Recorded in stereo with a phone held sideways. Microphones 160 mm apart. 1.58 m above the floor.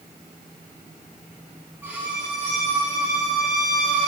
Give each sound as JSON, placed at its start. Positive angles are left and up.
{"t": 1.8, "sound": "a violin", "side_deg": -10, "distance_m": 2.5}